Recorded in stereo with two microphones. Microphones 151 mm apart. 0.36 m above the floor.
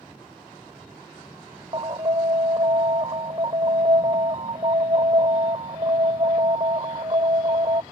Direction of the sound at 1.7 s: 35° right (ahead or behind).